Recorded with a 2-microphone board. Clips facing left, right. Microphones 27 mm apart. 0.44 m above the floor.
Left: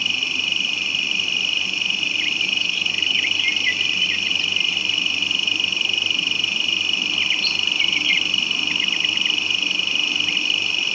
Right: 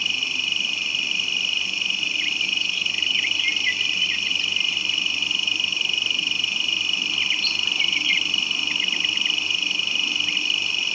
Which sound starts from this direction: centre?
An insect, at 0.0 s.